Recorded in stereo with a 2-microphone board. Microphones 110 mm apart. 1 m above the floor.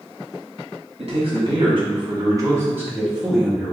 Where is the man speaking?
60° right (ahead or behind), 1.4 m; by 3.8 s 5° left (ahead or behind), 1.2 m.